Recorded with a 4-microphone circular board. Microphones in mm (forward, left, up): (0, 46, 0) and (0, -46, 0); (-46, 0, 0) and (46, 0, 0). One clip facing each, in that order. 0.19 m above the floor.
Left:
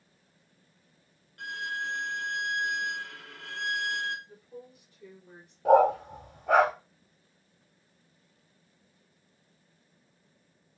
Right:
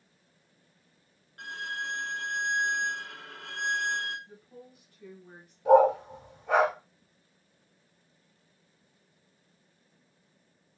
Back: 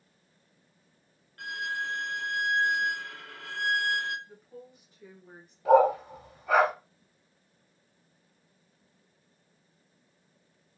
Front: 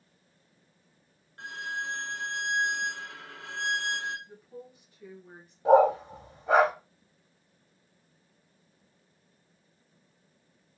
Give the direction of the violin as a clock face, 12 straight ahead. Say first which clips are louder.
Left 2 dB, back 2 dB; 2 o'clock.